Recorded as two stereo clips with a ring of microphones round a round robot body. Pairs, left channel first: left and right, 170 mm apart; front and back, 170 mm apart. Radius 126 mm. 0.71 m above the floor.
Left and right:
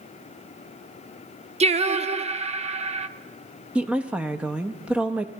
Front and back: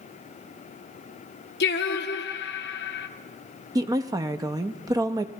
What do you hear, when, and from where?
1.6 s singing: 35° right, 0.6 m
3.8 s a woman speaking: 160° right, 0.5 m